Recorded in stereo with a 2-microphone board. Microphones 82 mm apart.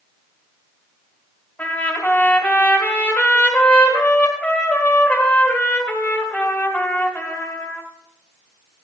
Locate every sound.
1.6 s a trumpet: 20° left (ahead or behind), 1.7 m